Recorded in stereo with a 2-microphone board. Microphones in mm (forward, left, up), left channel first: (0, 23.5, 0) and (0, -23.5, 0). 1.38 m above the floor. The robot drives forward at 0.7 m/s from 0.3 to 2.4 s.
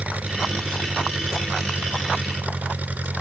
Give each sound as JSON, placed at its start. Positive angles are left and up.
{"t": 0.0, "sound": "an engine running", "side_deg": -35}